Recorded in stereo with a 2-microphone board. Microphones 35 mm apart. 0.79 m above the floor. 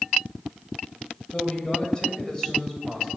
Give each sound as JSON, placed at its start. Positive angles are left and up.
{"t": 1.3, "sound": "a man speaking", "side_deg": 25, "distance_m": 4.0}